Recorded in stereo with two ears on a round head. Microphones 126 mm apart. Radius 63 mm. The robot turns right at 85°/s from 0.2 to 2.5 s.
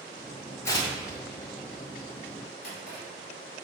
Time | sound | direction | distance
0.7 | tearing paper | 20° left (ahead or behind) | 1.5 m
2.6 | a drawer | 70° left (ahead or behind) | 2.5 m